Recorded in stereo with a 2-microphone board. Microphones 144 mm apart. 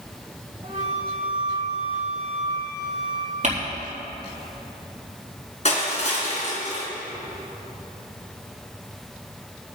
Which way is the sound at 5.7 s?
50° left (ahead or behind).